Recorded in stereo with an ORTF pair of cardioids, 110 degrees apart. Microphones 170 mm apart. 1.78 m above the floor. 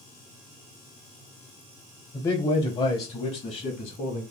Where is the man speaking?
20° left, 1.0 m; by 4.2 s 50° left, 2 m.